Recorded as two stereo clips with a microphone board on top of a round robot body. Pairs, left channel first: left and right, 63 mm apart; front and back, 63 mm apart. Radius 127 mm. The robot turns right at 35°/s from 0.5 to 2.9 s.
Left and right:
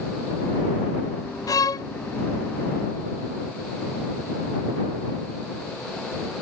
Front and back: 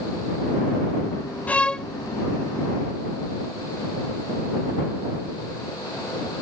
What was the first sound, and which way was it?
A violin, 70° left.